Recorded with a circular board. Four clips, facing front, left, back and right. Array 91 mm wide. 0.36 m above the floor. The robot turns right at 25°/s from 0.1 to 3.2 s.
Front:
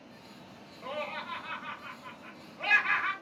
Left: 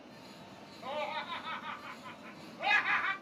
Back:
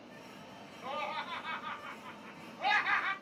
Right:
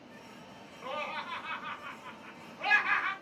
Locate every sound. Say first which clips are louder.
0.8 s laughter: even, front 1 dB; 75° right, 1.6 m; by 3.1 s 15° right, 1.6 m